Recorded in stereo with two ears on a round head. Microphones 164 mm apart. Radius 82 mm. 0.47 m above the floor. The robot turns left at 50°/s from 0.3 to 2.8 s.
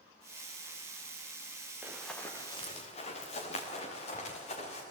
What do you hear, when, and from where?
1.8 s running footsteps: 10° right (ahead or behind), 3.5 m; by 4.8 s 40° left (ahead or behind), 5.5 m